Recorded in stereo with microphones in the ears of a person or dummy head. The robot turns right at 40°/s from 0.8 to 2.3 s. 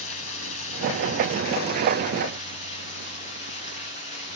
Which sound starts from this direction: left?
Running water, at 0.0 s.